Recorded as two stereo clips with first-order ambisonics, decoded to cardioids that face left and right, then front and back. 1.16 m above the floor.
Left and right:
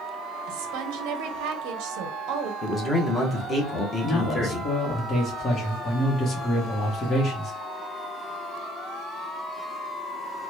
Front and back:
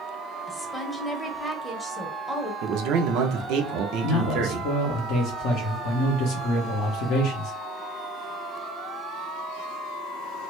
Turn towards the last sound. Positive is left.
turn(degrees=20)